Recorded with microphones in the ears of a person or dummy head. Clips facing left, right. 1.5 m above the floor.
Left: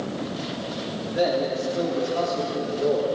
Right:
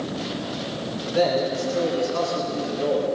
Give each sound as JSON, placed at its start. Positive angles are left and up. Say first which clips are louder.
{"t": 1.1, "sound": "a man speaking", "louder": "right 2 dB", "side_deg": -85, "distance_m": 5.0}